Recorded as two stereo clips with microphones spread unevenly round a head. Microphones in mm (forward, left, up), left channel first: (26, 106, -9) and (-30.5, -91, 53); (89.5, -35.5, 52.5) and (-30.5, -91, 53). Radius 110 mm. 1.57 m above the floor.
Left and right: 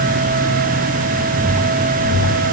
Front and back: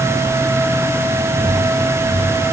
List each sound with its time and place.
Only background noise.